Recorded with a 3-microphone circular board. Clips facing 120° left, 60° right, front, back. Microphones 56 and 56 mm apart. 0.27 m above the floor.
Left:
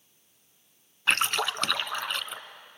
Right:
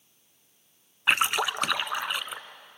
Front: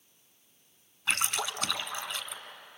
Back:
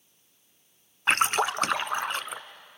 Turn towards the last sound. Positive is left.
turn(degrees=-135)